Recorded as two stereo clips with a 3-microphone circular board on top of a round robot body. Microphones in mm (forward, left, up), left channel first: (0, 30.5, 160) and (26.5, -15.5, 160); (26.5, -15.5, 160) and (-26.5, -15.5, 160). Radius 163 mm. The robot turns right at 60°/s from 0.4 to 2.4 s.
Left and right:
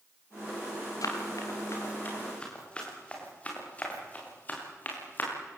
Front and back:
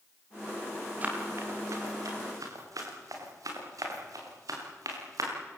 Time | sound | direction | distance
1.0 | running footsteps | 120° left | 8 m